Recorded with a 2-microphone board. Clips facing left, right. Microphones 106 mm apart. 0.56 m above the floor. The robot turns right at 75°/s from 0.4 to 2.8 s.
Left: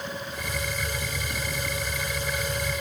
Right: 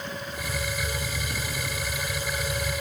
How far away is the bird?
I don't hear a bird.